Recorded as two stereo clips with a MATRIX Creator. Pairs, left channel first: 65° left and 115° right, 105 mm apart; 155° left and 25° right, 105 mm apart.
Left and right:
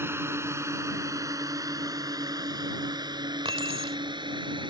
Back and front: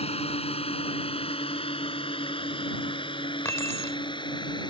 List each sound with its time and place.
0.0 s a drone: straight behind; by 4.7 s 155° right
3.5 s keys jangling: 140° right